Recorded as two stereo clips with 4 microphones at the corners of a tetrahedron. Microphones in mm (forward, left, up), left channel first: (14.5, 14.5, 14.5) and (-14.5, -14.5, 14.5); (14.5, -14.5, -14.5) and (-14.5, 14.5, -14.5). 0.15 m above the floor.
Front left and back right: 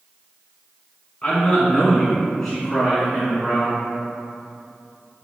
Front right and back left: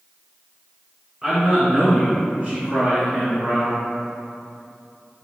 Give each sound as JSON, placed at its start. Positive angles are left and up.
{"t": 1.2, "sound": "a man speaking", "azimuth_deg": 80, "distance_m": 1.8}